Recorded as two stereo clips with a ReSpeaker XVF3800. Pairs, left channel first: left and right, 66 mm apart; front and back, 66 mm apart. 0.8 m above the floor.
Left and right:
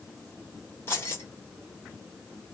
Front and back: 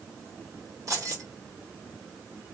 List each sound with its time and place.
0.9 s keys jangling: 145° left, 1.5 m